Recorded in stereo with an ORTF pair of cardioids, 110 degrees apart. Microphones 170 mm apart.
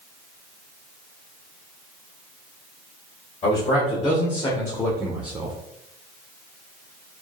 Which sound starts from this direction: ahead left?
A man speaking, at 3.4 s.